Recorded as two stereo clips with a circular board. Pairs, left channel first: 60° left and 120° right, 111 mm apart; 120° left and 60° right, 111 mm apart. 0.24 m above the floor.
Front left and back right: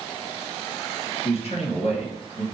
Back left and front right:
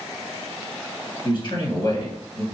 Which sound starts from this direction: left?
A man speaking, at 1.2 s.